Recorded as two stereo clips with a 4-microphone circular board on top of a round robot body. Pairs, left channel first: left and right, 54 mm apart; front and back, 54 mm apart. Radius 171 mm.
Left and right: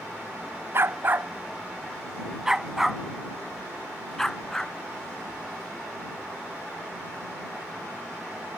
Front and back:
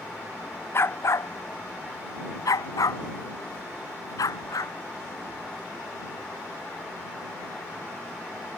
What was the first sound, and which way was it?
A dog barking, 45° right.